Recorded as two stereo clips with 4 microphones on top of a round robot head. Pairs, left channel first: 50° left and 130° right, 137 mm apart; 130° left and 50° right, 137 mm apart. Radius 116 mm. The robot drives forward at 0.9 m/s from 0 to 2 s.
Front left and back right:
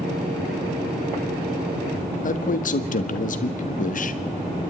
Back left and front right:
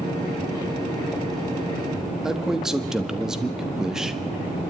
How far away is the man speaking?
About 1.6 m.